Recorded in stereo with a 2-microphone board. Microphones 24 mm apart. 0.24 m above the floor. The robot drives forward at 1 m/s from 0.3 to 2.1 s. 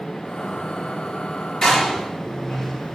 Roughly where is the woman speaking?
I don't hear a woman speaking.